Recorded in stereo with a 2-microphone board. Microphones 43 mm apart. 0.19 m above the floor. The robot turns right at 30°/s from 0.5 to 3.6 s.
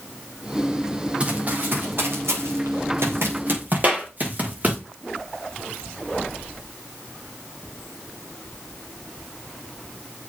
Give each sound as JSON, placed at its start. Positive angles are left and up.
{"t": 1.2, "sound": "running footsteps", "side_deg": -25, "distance_m": 4.0}
{"t": 3.8, "sound": "a clap", "side_deg": -40, "distance_m": 4.0}